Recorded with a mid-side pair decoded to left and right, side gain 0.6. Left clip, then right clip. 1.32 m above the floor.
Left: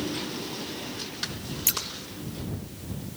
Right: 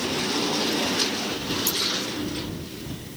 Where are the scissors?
25° left.